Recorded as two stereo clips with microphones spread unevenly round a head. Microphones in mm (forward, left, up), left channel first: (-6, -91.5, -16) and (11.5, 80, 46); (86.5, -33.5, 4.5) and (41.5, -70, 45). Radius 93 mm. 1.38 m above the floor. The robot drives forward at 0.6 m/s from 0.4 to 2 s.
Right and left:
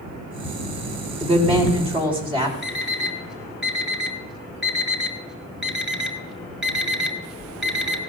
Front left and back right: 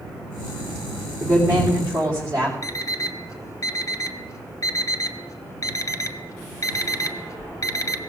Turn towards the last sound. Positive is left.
turn(degrees=5)